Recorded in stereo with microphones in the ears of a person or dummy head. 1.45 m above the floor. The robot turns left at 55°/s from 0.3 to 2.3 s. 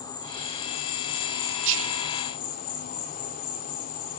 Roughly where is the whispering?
Right.